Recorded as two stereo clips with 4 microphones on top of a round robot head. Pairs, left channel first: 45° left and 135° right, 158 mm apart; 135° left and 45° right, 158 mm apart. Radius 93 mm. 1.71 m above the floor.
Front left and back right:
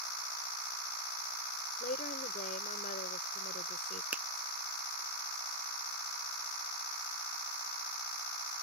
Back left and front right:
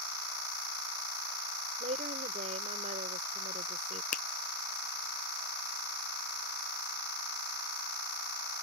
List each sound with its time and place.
1.8 s a woman speaking: straight ahead
4.1 s a finger snap: 150° left